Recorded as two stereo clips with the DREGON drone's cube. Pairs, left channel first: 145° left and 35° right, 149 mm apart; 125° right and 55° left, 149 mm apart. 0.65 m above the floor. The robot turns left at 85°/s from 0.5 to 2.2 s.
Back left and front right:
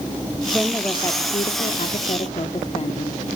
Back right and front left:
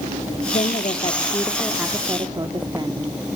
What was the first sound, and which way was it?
A woman speaking, 110° right.